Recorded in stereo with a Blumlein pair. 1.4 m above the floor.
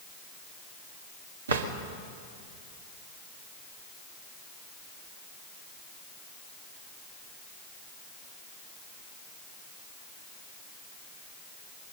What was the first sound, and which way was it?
A drawer, 65° right.